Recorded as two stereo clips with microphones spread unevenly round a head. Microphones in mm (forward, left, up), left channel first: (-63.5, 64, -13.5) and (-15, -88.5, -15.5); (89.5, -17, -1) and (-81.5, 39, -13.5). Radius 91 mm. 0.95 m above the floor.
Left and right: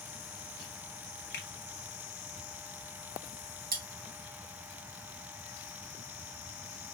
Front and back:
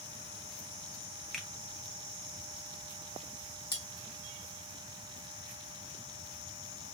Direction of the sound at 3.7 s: 95° right.